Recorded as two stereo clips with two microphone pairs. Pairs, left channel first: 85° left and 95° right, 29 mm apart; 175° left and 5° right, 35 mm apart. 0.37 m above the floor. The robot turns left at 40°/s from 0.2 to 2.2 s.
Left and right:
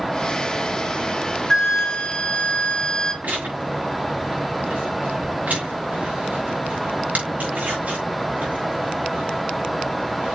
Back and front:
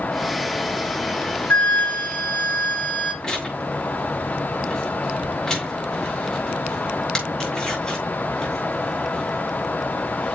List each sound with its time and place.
1.5 s a flute: 160° left, 1.4 m; by 3.1 s 135° left, 1.4 m
3.2 s tearing paper: 115° right, 6 m